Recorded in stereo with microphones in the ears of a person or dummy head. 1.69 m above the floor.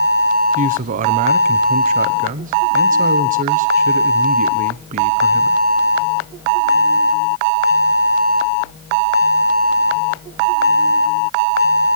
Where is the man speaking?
45° right (ahead or behind), 1.2 m.